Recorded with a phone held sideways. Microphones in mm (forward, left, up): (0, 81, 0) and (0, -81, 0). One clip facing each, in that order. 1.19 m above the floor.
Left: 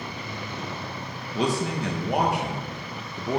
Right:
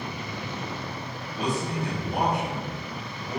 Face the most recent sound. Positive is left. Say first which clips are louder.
# left 3 dB
turn(degrees=70)  # may be behind; listen again after turning